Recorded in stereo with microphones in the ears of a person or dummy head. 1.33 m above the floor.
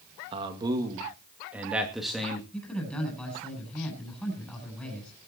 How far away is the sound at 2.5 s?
About 8.5 m.